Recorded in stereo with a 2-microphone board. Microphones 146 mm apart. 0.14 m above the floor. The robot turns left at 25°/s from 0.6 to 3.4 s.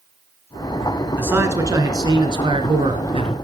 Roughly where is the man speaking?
Ahead.